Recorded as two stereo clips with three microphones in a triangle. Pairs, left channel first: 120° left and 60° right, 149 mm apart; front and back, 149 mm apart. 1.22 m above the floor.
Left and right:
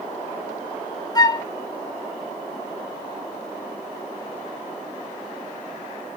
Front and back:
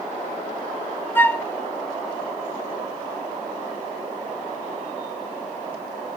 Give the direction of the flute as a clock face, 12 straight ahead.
10 o'clock.